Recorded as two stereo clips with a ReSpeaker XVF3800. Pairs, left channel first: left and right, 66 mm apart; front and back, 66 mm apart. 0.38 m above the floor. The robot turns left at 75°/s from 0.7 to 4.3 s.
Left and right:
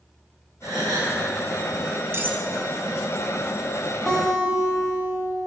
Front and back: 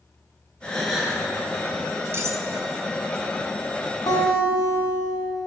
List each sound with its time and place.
0.6 s a gasp: 75° right, 4 m; by 1.2 s 110° right, 4 m
2.1 s cutlery clinking: 130° right, 1.2 m; by 2.5 s 155° right, 1.2 m
4.1 s a guitar: straight ahead, 4 m; by 5.3 s 15° right, 4 m